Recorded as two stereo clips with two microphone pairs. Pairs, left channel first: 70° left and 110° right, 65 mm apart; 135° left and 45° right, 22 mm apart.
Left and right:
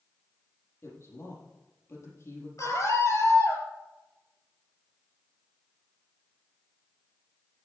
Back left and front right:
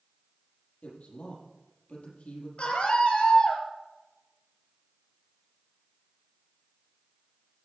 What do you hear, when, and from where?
0.8 s a woman speaking: 120° left, 6.5 m
2.6 s a scream: 110° left, 6 m